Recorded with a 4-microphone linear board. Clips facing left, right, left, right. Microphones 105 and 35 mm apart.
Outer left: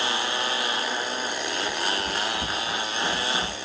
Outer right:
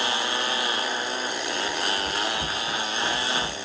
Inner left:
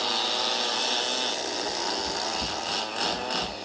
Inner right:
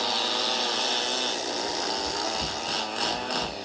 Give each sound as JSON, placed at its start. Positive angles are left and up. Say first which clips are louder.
{"t": 1.7, "sound": "running footsteps", "louder": "even, even", "side_deg": 25, "distance_m": 1.8}